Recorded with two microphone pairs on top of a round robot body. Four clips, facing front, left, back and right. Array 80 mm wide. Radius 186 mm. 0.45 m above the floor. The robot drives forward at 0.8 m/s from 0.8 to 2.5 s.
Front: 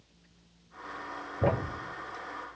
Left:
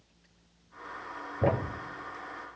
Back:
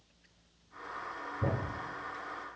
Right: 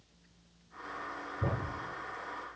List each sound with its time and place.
1.4 s a thud: 50° left, 0.7 m; by 1.8 s 75° left, 0.5 m